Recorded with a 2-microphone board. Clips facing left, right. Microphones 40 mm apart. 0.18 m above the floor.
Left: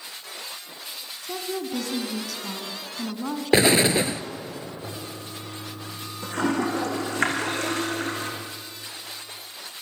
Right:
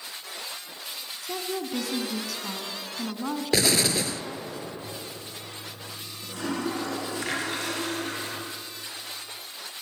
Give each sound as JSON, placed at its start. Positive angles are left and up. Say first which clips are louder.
{"t": 1.2, "sound": "a woman speaking", "louder": "left 1 dB", "side_deg": -5, "distance_m": 1.9}
{"t": 3.5, "sound": "an explosion", "louder": "left 6 dB", "side_deg": 30, "distance_m": 1.0}
{"t": 4.8, "sound": "a toilet flushing", "louder": "left 2 dB", "side_deg": 55, "distance_m": 5.5}